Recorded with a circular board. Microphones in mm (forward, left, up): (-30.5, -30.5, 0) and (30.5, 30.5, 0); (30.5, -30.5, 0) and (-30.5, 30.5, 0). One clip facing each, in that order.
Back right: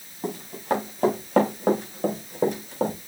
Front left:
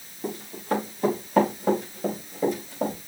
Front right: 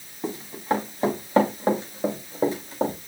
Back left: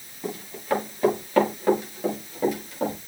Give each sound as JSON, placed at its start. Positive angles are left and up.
{"t": 0.2, "sound": "running footsteps", "azimuth_deg": -110, "distance_m": 7.0}